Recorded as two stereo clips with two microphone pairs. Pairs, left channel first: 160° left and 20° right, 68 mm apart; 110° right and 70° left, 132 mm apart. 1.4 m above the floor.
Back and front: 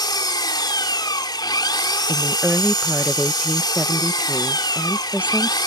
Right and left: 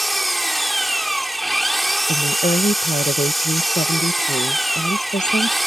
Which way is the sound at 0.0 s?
160° left.